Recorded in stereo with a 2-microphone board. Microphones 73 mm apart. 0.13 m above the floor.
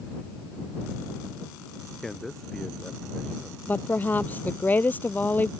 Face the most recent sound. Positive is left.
turn(degrees=25)  # may be behind; listen again after turning